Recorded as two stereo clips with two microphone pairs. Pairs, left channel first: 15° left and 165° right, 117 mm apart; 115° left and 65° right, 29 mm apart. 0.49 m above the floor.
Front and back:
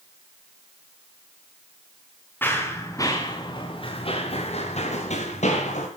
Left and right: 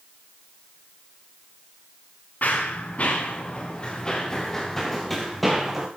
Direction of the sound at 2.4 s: 85° left.